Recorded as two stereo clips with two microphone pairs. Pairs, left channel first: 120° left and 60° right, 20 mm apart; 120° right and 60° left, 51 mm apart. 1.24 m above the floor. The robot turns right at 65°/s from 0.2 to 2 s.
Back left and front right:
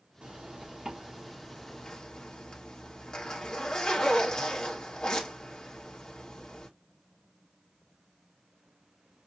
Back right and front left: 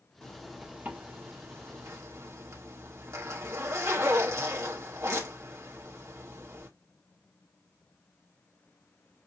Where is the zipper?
45° right, 2.5 m; by 6.7 s 70° left, 2.5 m.